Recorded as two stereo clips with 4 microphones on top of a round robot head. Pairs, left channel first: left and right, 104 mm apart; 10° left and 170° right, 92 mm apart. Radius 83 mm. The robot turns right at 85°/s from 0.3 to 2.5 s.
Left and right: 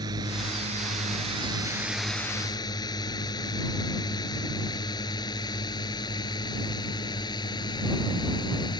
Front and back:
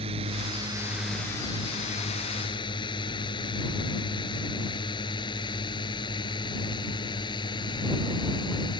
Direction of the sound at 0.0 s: 150° right.